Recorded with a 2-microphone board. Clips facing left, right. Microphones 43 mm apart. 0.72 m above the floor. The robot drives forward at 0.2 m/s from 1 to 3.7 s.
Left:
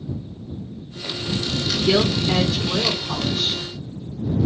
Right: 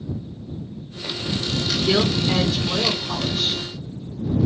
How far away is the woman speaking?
About 0.7 m.